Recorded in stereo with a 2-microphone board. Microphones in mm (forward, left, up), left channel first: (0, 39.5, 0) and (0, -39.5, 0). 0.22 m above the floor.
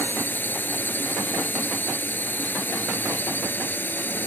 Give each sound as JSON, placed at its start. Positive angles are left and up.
{"t": 0.0, "sound": "a drone", "side_deg": 25}